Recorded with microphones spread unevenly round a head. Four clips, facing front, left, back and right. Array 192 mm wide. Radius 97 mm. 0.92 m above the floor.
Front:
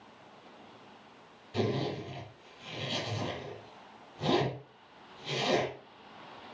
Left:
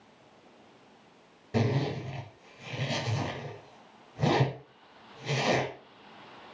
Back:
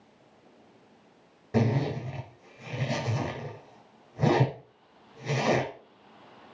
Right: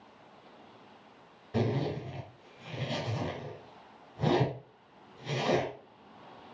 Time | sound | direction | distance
1.5 | a zipper | 150° left | 4.5 m